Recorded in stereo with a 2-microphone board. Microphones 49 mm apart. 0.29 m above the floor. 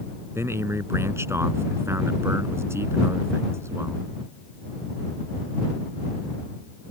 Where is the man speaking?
70° right (ahead or behind).